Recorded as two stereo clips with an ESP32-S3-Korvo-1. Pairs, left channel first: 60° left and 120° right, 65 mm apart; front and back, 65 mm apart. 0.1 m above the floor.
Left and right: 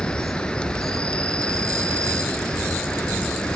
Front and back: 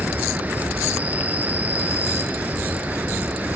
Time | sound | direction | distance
0.0 | an insect | 130° left | 1.6 m